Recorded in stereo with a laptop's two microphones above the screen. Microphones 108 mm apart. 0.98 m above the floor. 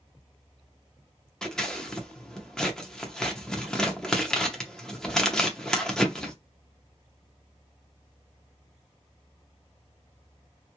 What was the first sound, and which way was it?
Scissors, 5° left (ahead or behind).